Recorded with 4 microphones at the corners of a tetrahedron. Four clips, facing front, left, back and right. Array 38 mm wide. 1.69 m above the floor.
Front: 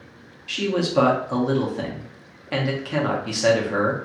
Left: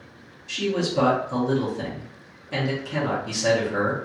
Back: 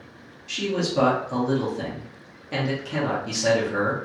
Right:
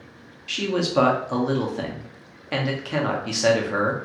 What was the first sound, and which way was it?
A man speaking, 55° right.